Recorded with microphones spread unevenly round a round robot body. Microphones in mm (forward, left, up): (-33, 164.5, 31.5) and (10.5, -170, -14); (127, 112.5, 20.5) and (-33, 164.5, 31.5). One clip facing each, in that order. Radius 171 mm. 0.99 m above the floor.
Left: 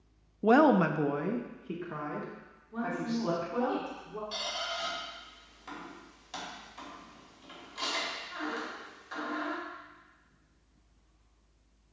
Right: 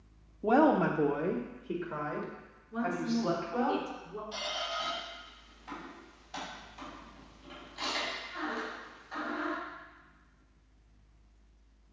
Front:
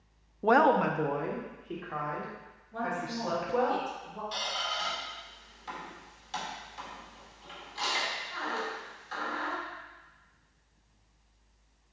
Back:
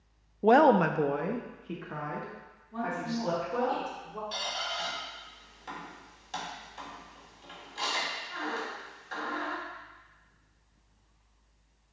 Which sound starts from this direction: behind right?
A woman speaking, at 2.7 s.